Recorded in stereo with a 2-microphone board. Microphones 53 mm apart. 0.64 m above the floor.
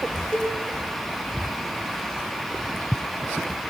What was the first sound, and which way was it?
A cowbell, 20° left (ahead or behind).